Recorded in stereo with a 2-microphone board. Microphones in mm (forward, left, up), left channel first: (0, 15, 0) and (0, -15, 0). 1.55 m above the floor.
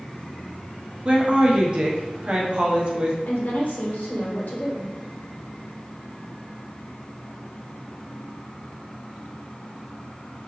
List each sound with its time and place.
1.1 s a woman speaking: 40° right (ahead or behind), 1.0 m
3.2 s a woman speaking: 75° left (ahead or behind), 1.6 m